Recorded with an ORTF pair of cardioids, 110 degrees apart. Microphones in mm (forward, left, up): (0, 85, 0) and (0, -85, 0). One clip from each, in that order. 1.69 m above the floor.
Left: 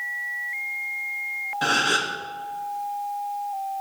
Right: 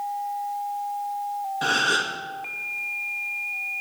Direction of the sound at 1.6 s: 10° left.